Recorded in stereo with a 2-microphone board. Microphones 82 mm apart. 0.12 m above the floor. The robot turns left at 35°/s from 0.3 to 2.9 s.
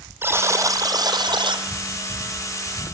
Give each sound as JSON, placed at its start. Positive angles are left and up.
{"t": 0.2, "sound": "a buzzer", "azimuth_deg": -30, "distance_m": 1.7}